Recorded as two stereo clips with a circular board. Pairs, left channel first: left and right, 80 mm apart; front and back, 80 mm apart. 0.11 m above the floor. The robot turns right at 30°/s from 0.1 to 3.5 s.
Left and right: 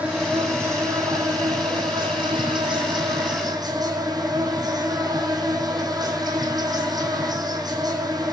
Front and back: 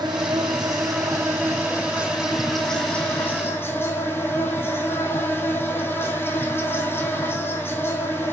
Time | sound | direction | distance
0.0 | an insect | 160° right | 1.4 m